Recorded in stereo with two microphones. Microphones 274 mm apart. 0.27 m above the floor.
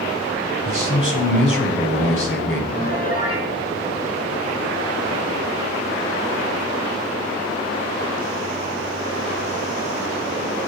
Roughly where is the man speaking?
Left.